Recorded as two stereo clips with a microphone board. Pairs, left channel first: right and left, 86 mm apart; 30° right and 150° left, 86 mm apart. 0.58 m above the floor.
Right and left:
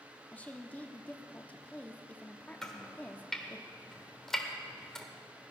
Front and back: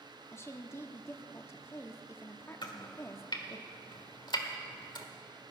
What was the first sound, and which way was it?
A woman speaking, 35° right.